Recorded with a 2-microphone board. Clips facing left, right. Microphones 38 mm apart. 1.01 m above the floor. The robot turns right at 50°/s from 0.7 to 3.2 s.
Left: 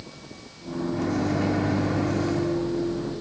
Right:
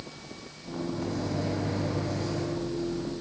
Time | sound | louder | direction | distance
0.9 | a microwave | left 8 dB | 65° left | 1.5 m